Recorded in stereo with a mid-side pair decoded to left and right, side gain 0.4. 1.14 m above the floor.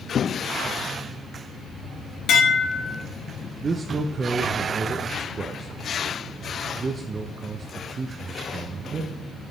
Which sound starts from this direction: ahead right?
A man speaking, at 3.6 s.